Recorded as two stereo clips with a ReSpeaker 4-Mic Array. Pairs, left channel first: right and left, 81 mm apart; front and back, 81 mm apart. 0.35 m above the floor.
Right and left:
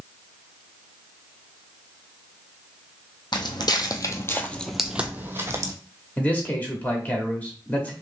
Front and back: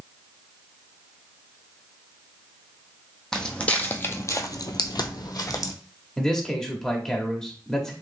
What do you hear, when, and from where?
3.3 s footsteps: 80° right, 0.8 m; by 5.7 s 40° left, 0.8 m
6.2 s a man speaking: 65° right, 0.9 m